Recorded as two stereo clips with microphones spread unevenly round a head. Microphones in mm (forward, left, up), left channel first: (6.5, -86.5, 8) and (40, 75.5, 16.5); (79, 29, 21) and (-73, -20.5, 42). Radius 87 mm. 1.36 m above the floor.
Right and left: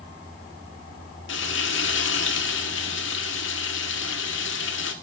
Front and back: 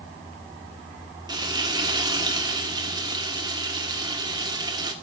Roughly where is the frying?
Right.